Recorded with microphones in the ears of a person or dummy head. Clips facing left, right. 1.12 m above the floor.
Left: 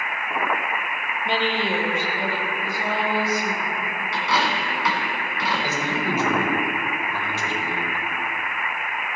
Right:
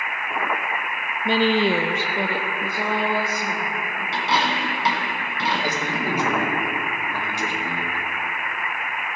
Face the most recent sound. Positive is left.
turn(degrees=-15)  # may be behind; listen again after turning